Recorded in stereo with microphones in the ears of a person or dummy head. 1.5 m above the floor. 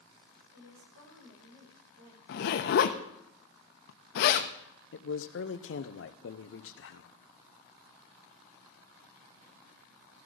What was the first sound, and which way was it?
A woman speaking, 85° right.